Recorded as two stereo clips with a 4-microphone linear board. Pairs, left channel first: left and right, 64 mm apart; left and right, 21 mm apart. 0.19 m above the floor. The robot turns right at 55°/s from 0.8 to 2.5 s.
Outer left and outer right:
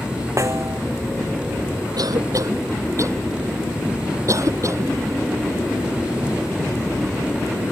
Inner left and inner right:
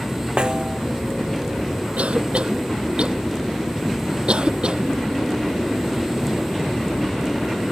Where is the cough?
75° right (ahead or behind); by 5.0 s 50° right (ahead or behind).